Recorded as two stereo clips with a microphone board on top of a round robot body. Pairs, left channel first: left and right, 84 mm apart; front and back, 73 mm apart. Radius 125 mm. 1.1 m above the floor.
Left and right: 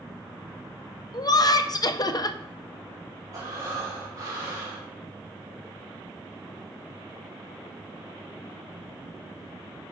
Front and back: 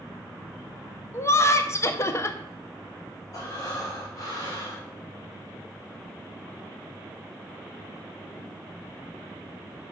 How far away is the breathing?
About 3 m.